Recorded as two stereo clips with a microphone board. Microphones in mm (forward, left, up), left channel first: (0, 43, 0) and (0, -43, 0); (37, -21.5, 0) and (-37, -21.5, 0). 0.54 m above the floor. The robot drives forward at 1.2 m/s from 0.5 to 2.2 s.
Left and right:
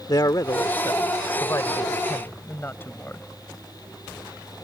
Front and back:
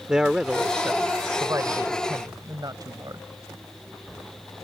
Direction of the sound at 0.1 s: 100° left.